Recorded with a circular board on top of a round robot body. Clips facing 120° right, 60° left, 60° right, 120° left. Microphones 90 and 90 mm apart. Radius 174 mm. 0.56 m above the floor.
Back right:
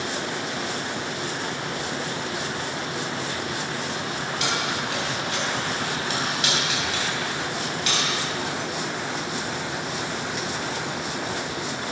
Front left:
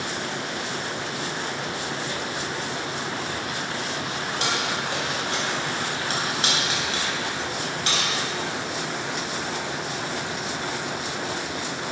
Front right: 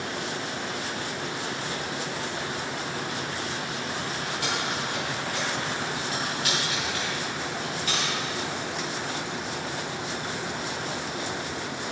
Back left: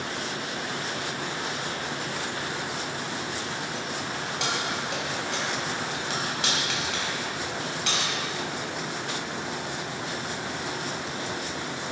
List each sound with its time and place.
4.4 s keys jangling: 115° left, 3.5 m